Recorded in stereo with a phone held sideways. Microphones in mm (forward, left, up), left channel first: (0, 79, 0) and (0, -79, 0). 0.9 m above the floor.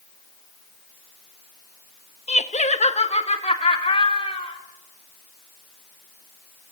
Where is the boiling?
No boiling in this recording.